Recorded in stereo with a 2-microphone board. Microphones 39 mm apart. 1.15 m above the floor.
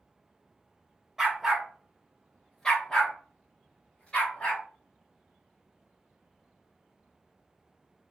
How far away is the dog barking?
About 0.7 m.